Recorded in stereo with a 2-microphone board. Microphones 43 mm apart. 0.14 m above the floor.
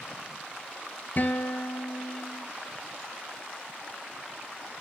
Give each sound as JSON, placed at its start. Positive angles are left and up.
{"t": 1.2, "sound": "a guitar", "side_deg": 45, "distance_m": 0.5}